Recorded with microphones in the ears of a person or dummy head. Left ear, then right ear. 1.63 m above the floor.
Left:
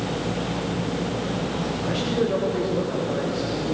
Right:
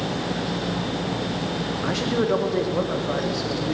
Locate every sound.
1.8 s a man speaking: 40° right (ahead or behind), 1.7 m